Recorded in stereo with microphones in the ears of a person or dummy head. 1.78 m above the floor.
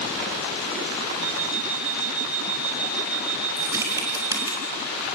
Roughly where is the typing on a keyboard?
Centre.